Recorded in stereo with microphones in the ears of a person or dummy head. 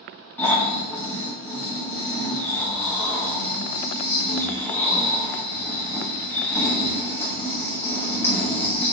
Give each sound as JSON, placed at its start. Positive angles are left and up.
{"t": 0.4, "sound": "snoring", "side_deg": 10, "distance_m": 0.8}